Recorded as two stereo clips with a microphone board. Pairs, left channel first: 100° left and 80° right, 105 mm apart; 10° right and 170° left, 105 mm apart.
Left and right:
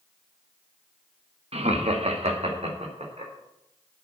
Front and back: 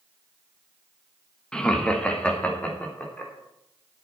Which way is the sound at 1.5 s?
95° right.